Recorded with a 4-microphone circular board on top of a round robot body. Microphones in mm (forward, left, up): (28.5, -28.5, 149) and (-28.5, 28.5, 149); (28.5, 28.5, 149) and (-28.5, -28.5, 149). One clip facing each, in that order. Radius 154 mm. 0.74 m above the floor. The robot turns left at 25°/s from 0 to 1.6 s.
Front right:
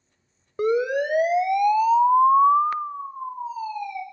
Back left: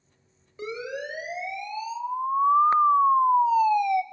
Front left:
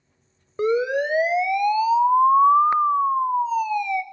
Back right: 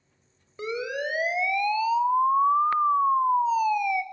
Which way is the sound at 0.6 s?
5° right.